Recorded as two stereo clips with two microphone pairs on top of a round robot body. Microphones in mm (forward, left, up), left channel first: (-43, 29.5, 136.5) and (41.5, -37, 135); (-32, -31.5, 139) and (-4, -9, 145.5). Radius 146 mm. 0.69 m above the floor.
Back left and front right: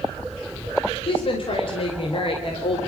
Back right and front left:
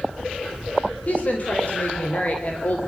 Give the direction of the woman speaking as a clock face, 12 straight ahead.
6 o'clock.